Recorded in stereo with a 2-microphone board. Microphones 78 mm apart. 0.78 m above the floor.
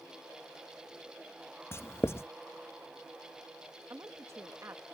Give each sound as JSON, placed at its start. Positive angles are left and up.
{"t": 1.7, "sound": "writing", "side_deg": 30}
{"t": 3.9, "sound": "a woman speaking", "side_deg": -40}